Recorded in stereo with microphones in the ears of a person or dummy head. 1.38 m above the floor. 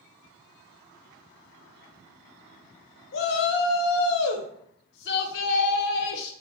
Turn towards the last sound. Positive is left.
turn(degrees=60)  # may be behind; listen again after turning